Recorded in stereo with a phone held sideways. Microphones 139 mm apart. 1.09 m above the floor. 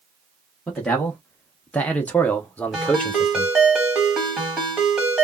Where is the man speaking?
5° left (ahead or behind), 0.9 m.